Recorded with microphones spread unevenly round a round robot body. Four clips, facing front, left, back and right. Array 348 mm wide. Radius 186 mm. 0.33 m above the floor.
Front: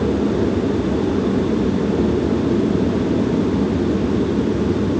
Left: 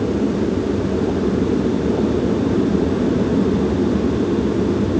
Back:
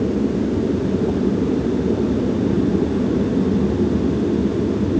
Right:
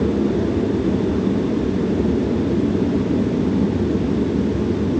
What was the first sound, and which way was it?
Only background noise.